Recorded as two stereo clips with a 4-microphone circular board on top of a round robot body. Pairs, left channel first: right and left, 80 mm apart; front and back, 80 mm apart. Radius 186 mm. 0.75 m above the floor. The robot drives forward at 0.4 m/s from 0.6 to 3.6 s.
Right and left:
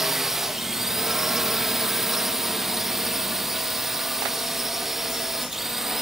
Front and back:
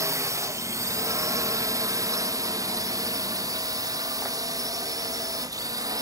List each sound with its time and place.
0.0 s a drone: 175° left